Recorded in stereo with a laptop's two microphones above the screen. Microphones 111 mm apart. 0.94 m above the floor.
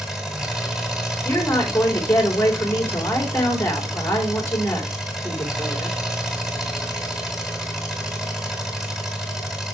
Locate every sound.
0.0 s an engine running: 5° right (ahead or behind), 1.5 m
1.2 s a woman speaking: 20° left (ahead or behind), 3 m